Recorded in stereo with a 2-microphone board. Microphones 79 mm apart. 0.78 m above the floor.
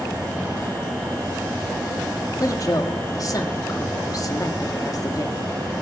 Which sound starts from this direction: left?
A woman speaking, at 2.4 s.